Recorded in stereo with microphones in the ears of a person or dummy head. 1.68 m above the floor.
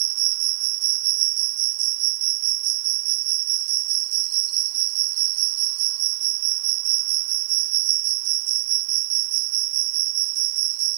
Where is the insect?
70° right (ahead or behind).